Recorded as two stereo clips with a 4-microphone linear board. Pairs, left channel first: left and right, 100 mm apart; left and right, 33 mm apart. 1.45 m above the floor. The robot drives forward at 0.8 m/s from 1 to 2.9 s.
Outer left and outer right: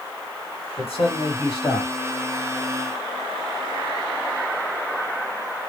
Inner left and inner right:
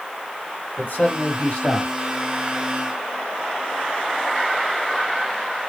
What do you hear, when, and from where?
0.8 s a man speaking: 70° left (ahead or behind), 2 m; by 1.9 s 55° left (ahead or behind), 2.5 m